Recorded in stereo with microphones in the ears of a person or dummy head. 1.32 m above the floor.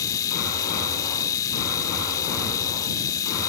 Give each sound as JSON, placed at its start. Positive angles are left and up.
{"t": 0.0, "sound": "a machine running", "side_deg": 20}